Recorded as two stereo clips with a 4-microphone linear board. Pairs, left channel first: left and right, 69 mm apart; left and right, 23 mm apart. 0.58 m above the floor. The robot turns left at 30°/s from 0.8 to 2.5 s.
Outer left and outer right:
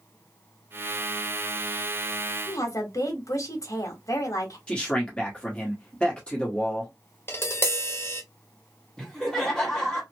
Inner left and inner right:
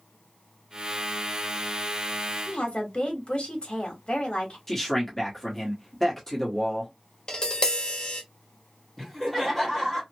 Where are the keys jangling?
I don't hear keys jangling.